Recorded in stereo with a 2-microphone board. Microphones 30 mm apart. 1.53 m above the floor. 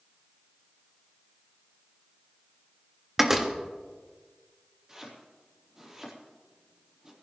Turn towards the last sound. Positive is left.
turn(degrees=-20)  # may be behind; listen again after turning